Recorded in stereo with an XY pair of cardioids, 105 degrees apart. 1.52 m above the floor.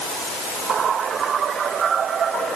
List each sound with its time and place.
Only background noise.